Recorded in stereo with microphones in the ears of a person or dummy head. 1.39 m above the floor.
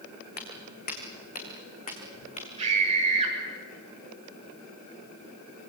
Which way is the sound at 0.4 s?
55° left (ahead or behind).